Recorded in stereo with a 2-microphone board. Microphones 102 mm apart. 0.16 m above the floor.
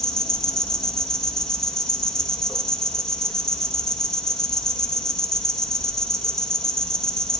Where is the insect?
5° left (ahead or behind), 1.2 m.